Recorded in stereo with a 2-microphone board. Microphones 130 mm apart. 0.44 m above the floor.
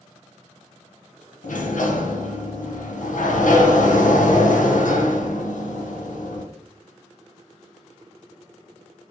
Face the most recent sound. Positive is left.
turn(degrees=80)